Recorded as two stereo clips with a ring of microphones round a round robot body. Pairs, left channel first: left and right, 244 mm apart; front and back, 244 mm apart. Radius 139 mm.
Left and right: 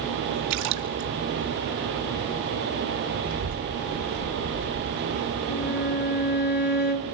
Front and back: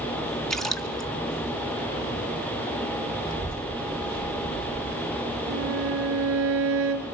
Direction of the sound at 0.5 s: 90° right.